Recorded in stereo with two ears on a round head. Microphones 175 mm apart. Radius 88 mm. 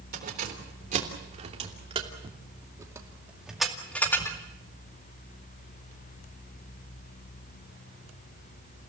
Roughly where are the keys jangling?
Right.